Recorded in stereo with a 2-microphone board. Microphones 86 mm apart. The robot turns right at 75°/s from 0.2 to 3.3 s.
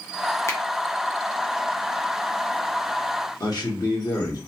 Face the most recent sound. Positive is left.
turn(degrees=50)  # may be behind; listen again after turning